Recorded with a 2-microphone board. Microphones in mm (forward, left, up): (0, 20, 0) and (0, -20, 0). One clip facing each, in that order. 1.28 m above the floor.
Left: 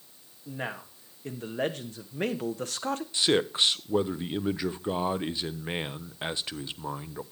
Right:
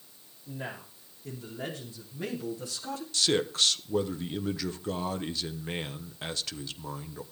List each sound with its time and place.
0.5 s a man speaking: 60° left (ahead or behind), 2.5 m
3.1 s a man speaking: 25° left (ahead or behind), 0.5 m